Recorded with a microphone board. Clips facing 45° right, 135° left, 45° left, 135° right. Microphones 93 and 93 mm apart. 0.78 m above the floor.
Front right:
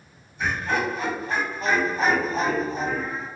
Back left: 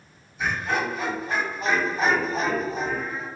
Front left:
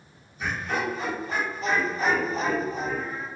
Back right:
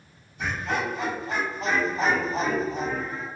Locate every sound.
0.4 s laughter: 145° right, 1.8 m